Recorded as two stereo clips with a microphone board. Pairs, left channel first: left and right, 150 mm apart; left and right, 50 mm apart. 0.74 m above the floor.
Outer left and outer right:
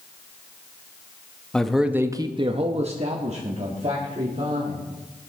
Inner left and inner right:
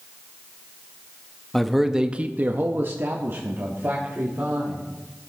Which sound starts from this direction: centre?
A man speaking, at 1.5 s.